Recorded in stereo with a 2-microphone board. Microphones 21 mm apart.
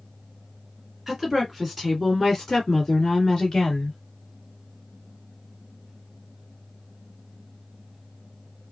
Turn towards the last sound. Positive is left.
turn(degrees=35)  # may be behind; listen again after turning